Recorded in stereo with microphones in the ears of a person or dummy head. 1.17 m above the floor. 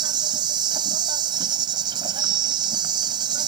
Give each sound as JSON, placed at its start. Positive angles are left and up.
{"t": 0.0, "sound": "an insect", "side_deg": -30}